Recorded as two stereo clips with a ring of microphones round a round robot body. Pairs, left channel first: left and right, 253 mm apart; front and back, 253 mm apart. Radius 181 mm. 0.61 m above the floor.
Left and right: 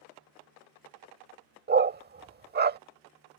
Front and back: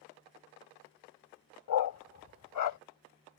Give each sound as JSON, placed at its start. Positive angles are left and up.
{"t": 1.7, "sound": "a dog barking", "azimuth_deg": -35}